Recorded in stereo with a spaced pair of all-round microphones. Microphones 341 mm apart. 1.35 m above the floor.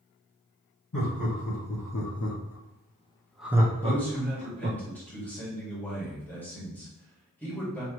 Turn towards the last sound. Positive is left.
turn(degrees=5)  # may be behind; listen again after turning